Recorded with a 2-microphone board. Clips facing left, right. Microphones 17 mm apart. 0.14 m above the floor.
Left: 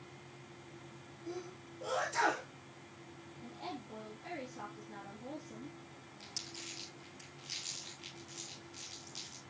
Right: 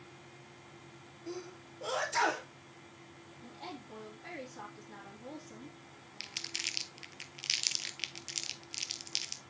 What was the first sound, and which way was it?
A sneeze, 25° right (ahead or behind).